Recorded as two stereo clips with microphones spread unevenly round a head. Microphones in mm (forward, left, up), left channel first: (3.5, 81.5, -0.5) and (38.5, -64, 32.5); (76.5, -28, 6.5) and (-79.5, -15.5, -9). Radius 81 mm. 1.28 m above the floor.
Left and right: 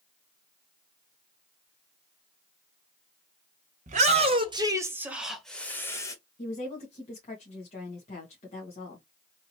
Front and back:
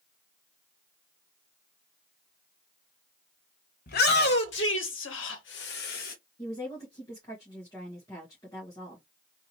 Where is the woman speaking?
65° left, 1.6 m.